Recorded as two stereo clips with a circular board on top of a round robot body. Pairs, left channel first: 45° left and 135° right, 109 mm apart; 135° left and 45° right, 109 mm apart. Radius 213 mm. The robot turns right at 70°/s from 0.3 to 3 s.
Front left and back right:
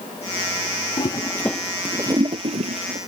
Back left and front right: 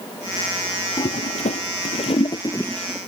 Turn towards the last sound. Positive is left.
turn(degrees=-130)